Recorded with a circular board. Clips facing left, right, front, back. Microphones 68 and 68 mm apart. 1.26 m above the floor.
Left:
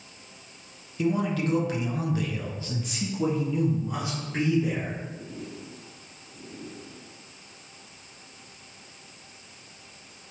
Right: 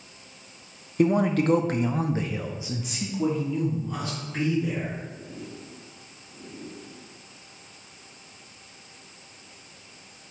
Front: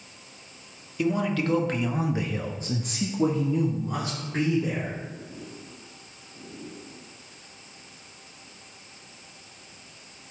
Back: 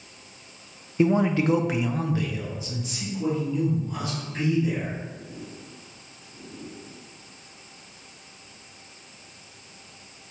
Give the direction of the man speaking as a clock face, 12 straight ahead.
4 o'clock.